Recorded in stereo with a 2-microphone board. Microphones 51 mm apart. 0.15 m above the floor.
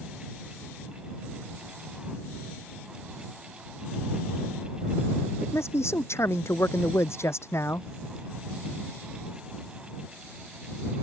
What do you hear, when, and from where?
5.4 s a man speaking: 60° left (ahead or behind)